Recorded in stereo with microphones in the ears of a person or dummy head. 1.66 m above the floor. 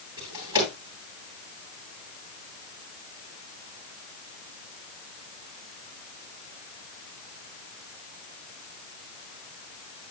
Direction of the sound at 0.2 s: 25° right (ahead or behind).